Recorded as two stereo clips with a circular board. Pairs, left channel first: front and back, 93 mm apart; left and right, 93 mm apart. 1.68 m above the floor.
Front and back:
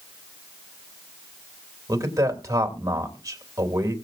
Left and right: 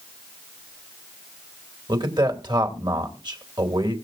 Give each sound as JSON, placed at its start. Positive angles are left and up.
{"t": 1.9, "sound": "a man speaking", "azimuth_deg": -130, "distance_m": 3.0}